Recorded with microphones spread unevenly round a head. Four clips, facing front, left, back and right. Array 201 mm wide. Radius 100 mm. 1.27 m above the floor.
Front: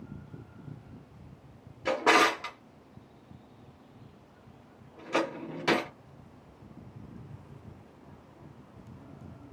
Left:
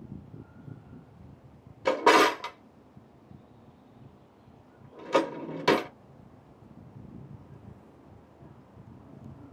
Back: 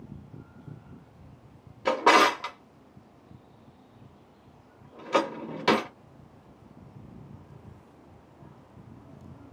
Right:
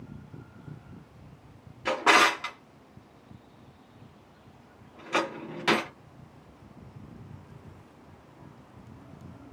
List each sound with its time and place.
1.9 s a drawer: 145° left, 0.8 m